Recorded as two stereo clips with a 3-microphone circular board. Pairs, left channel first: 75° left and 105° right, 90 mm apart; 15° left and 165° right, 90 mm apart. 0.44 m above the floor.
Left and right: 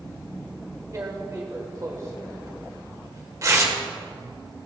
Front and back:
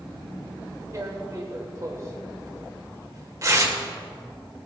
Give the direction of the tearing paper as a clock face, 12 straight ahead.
5 o'clock.